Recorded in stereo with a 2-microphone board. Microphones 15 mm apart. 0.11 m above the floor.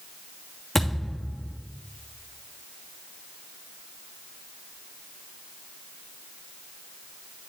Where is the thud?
Centre (ahead or behind), 3 m.